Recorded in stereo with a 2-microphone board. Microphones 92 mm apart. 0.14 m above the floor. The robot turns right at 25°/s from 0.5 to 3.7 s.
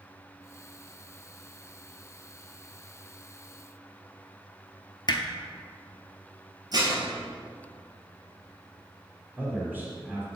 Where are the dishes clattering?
45° right (ahead or behind), 2.0 m.